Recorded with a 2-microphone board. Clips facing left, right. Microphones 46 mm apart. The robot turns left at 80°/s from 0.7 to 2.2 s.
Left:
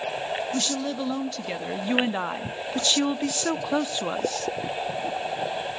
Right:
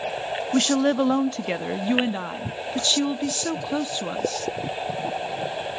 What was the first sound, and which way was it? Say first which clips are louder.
A woman speaking: right 8 dB; 85° right.